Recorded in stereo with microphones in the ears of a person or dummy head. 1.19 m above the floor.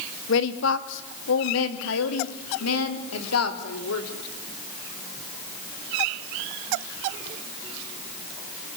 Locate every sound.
0.3 s a woman speaking: 75° left (ahead or behind), 2 m